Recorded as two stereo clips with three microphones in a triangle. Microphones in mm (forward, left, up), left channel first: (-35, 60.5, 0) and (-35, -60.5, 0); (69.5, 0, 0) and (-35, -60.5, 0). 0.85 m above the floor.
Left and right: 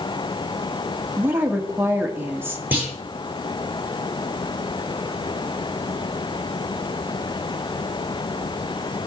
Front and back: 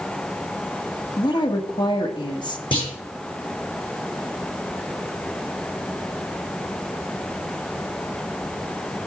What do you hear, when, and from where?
1.2 s a woman speaking: 20° right, 1.6 m
2.7 s a clunk: 15° right, 4.5 m